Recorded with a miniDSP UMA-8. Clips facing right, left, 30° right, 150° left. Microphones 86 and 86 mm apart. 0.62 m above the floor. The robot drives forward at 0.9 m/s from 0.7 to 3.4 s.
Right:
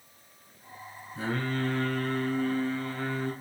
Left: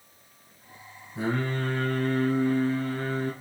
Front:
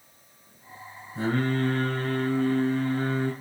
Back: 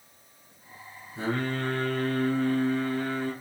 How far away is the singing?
About 5 m.